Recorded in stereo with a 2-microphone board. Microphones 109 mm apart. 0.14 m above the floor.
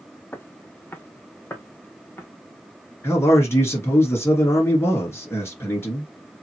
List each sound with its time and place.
0.3 s footsteps: 20° left (ahead or behind), 0.5 m
3.0 s a man speaking: 25° left (ahead or behind), 2 m